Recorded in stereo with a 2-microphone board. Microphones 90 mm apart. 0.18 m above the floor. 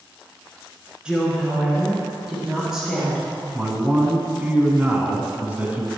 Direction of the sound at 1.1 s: 10° right (ahead or behind).